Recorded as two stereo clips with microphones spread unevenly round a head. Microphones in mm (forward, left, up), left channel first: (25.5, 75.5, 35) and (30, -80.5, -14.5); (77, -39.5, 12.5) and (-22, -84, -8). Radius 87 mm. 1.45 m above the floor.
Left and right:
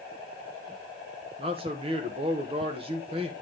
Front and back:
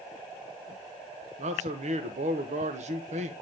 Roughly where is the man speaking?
Behind right.